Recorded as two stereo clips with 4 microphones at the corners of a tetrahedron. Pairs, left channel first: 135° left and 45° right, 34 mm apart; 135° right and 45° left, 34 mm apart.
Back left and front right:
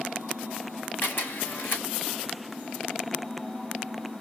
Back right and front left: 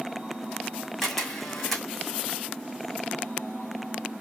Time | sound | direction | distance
1.0 | a camera shutter | 145° left | 2 m